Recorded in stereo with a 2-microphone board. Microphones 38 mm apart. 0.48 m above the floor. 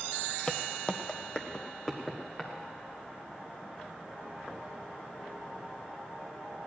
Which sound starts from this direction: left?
Footsteps, at 0.5 s.